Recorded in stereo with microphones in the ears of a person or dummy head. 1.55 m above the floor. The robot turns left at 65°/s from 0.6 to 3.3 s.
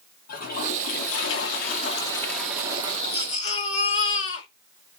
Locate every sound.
0.3 s a toilet flushing: 120° left, 3 m; by 3.0 s 35° right, 3 m
3.1 s a baby crying: 30° left (ahead or behind), 2.5 m; by 4.5 s 40° left (ahead or behind), 2.5 m